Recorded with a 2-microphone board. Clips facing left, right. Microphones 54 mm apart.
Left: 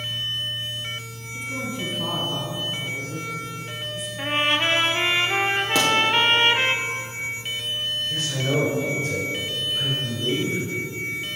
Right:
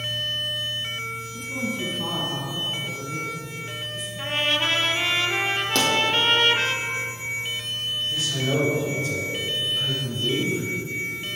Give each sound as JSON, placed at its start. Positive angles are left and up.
{"t": 1.3, "sound": "a woman speaking", "side_deg": 5, "distance_m": 1.5}
{"t": 4.2, "sound": "a trumpet", "side_deg": 25, "distance_m": 0.5}
{"t": 5.8, "sound": "a pop", "side_deg": 10, "distance_m": 2.0}
{"t": 8.1, "sound": "a man speaking", "side_deg": 40, "distance_m": 2.5}